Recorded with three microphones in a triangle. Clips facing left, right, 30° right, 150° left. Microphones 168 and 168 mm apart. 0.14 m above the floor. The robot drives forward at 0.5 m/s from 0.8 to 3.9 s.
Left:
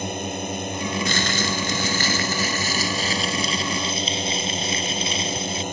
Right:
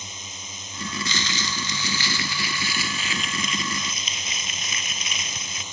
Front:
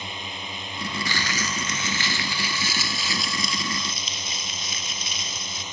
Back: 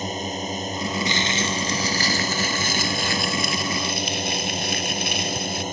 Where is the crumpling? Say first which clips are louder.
Left 7 dB, back 5 dB; 85° left; by 5.6 s 145° left.